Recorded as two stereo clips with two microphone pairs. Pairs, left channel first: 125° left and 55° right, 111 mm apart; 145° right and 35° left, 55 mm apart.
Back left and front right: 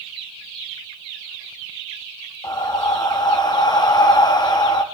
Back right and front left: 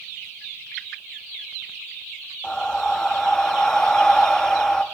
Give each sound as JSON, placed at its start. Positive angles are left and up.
{"t": 2.4, "sound": "breathing", "azimuth_deg": 135, "distance_m": 0.7}